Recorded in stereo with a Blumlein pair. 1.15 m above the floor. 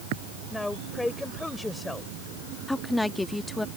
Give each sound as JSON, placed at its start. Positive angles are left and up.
{"t": 0.5, "sound": "a woman speaking", "azimuth_deg": 5}
{"t": 2.7, "sound": "a woman speaking", "azimuth_deg": 5}